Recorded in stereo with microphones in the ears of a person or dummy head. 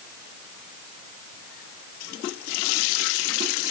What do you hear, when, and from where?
Only background noise.